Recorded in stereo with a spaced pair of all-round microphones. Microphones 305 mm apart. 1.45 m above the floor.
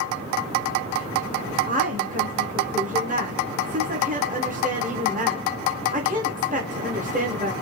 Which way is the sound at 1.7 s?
25° right (ahead or behind).